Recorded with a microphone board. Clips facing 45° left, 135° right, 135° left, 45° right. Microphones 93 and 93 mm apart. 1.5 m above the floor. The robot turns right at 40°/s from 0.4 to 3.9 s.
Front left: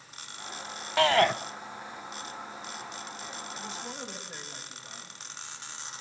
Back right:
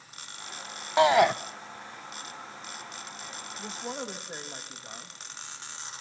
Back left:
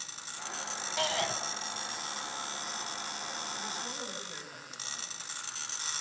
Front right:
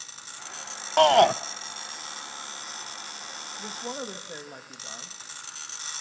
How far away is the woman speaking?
About 2.5 m.